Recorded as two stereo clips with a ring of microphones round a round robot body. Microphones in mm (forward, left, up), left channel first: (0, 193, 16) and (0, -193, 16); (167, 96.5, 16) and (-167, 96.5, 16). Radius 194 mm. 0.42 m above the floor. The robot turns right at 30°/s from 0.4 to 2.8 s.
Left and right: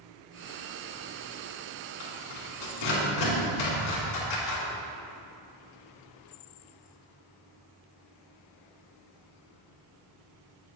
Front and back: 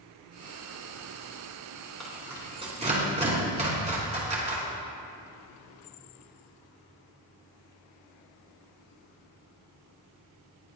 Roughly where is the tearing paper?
Left.